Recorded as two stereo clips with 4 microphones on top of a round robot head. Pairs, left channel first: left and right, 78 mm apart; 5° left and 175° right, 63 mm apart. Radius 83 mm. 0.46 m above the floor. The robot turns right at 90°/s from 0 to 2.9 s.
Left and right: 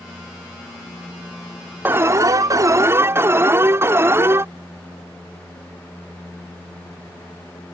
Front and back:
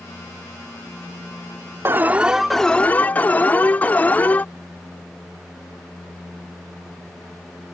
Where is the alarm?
145° right; by 4.5 s 50° right.